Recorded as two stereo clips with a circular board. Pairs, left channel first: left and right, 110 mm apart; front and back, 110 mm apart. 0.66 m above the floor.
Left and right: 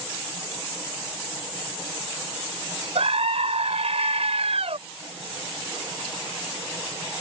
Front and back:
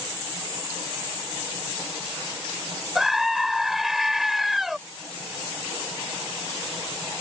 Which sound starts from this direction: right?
A scream, at 3.0 s.